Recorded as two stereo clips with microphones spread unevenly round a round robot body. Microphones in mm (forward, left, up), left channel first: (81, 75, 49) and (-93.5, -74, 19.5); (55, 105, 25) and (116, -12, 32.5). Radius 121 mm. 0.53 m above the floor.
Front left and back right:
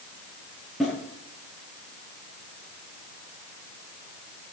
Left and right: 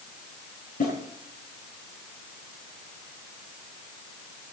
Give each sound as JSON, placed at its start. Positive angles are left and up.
{"t": 0.8, "sound": "a snare drum", "azimuth_deg": 130, "distance_m": 10.0}